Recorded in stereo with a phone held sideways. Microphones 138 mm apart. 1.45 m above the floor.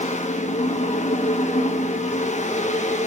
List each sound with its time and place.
0.0 s a fan: 60° left (ahead or behind), 1.0 m